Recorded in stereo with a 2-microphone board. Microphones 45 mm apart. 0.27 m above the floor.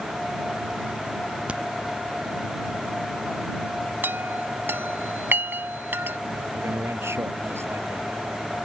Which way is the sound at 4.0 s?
50° right (ahead or behind).